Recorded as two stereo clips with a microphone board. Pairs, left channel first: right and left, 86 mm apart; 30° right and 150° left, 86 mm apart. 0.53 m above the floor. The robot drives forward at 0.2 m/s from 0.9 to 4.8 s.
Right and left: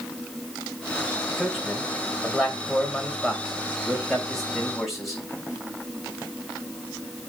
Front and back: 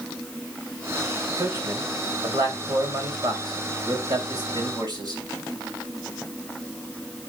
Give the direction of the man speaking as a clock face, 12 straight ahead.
6 o'clock.